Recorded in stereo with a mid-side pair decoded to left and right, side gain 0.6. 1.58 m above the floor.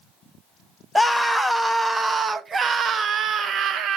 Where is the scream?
5° left, 1.5 m; by 4.0 s 55° right, 1.8 m.